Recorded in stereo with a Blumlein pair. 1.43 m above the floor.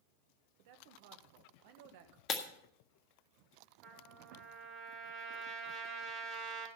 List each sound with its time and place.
0.6 s a man speaking: 50° right, 1.4 m
2.3 s breaking glass: 30° left, 1.6 m
3.8 s a trumpet: 30° right, 4 m